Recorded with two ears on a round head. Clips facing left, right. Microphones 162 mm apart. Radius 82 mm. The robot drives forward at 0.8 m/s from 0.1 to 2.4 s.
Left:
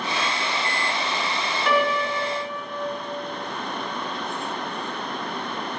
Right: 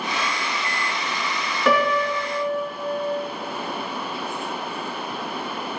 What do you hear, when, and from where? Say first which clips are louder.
1.6 s a piano: right 3 dB; 65° right (ahead or behind), 2.5 m; by 2.8 s 75° right (ahead or behind), 2.5 m